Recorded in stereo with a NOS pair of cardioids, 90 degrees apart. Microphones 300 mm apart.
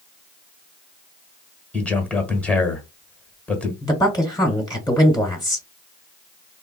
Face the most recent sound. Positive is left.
turn(degrees=15)